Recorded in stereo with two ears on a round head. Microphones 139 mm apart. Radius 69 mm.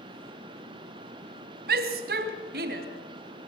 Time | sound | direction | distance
1.7 | a shout | 70° right (ahead or behind) | 3 m